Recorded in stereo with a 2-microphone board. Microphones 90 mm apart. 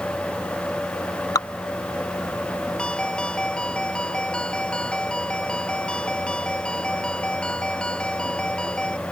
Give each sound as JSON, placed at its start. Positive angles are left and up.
{"t": 1.4, "sound": "dripping", "side_deg": 45}
{"t": 2.8, "sound": "a ringtone", "side_deg": 10}